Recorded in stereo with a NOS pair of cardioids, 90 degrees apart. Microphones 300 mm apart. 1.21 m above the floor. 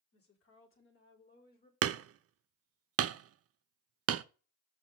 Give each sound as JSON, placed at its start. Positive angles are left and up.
{"t": 0.1, "sound": "a woman speaking", "azimuth_deg": 50, "distance_m": 2.5}
{"t": 1.8, "sound": "hammering", "azimuth_deg": -50, "distance_m": 0.6}